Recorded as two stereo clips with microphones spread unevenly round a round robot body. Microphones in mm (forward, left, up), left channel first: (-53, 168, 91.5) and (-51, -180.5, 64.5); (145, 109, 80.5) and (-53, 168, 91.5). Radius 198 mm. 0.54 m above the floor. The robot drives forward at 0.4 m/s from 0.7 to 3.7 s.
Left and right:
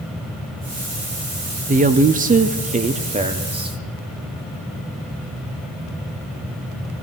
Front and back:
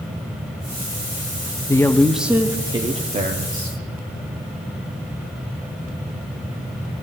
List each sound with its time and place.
1.7 s a woman speaking: 65° right, 0.7 m; by 3.8 s 160° right, 1.0 m